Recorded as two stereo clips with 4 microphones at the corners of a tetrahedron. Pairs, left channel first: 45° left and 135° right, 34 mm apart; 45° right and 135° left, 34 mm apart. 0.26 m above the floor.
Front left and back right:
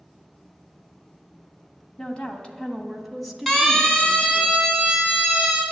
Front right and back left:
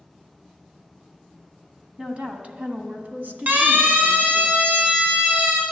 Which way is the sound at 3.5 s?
125° left.